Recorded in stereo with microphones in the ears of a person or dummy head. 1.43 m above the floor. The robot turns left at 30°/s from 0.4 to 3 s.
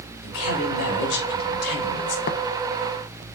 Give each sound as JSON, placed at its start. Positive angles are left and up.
{"t": 0.2, "sound": "a man speaking", "azimuth_deg": 95, "distance_m": 3.5}
{"t": 2.3, "sound": "tapping", "side_deg": 50, "distance_m": 0.7}